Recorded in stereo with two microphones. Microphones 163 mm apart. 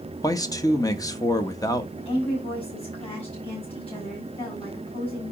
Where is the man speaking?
20° left (ahead or behind), 0.9 m.